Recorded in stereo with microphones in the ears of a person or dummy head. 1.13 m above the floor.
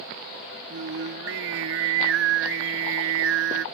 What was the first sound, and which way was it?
Singing, 85° right.